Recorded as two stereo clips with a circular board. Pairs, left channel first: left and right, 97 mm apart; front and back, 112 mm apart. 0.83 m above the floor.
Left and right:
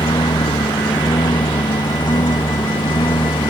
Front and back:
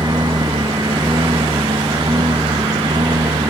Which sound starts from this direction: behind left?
A lawn mower, at 0.0 s.